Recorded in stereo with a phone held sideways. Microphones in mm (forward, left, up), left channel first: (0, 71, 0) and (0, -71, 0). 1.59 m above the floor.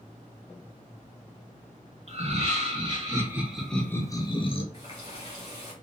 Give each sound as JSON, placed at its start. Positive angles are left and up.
{"t": 2.1, "sound": "laughter", "side_deg": -45, "distance_m": 1.3}
{"t": 4.7, "sound": "a running tap", "side_deg": 40, "distance_m": 1.8}